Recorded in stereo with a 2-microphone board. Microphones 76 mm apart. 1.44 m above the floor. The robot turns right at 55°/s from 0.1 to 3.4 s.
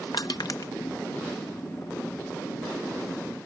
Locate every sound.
0.1 s crushing: 70° left (ahead or behind); by 0.7 s 60° left (ahead or behind)